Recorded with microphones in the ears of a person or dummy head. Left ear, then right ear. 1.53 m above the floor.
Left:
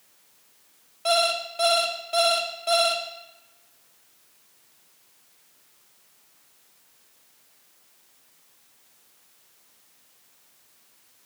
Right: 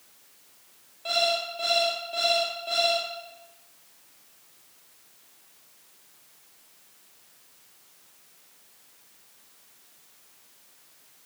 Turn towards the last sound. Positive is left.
turn(degrees=40)  # may be behind; listen again after turning